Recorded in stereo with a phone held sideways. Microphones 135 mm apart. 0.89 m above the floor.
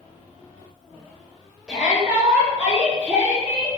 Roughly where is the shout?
Centre.